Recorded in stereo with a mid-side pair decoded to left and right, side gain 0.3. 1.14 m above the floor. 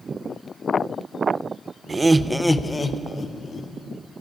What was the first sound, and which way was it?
Laughter, 45° right.